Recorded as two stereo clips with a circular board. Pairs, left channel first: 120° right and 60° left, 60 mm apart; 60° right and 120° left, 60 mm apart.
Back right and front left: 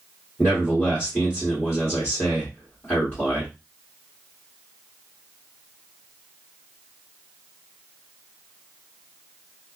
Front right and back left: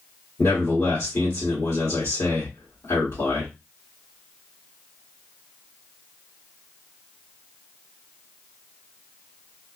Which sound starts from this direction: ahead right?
A man speaking, at 0.4 s.